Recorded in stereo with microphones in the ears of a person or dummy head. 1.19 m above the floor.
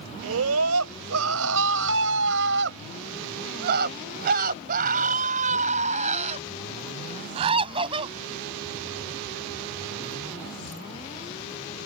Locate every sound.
0.2 s a scream: 85° right; by 8.2 s 25° right (ahead or behind)